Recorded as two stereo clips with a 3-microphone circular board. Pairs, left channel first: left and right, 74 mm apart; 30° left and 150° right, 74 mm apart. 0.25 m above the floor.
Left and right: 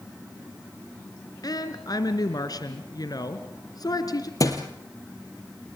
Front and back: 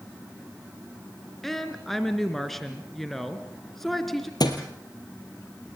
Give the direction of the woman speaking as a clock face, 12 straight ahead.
8 o'clock.